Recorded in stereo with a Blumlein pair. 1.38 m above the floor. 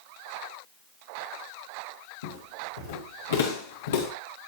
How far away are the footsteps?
About 7 m.